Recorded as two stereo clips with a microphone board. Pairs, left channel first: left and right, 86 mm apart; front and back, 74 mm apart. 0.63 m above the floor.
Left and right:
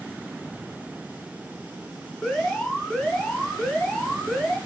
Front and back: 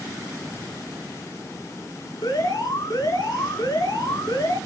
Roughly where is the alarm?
Ahead.